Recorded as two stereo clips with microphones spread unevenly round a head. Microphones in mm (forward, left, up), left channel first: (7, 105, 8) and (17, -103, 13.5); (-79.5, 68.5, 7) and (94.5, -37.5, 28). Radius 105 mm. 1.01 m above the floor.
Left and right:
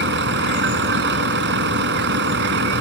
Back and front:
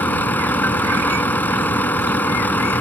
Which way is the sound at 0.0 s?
130° right.